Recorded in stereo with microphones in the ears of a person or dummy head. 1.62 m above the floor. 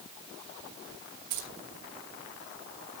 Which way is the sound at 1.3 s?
50° right (ahead or behind).